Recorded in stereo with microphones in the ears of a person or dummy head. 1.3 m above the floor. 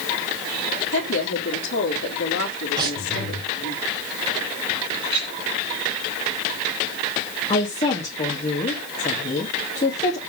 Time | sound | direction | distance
0.9 | a woman speaking | 65° left (ahead or behind) | 3 m
2.8 | breathing | 25° right (ahead or behind) | 4 m
5.0 | a clink | 30° right (ahead or behind) | 6 m
7.5 | a woman speaking | 35° left (ahead or behind) | 2.5 m